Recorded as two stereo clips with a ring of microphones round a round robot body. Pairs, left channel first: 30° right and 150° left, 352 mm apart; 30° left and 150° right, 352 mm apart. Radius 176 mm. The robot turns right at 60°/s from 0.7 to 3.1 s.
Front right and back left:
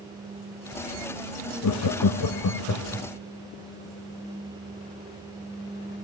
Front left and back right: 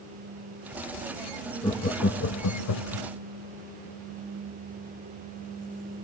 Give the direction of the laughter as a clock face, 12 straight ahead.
2 o'clock.